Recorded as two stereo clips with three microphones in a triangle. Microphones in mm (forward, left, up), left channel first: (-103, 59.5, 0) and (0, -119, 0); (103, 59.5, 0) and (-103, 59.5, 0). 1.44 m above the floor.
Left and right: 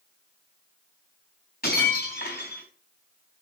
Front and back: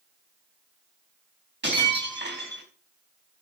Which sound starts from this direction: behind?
Breaking glass, at 1.6 s.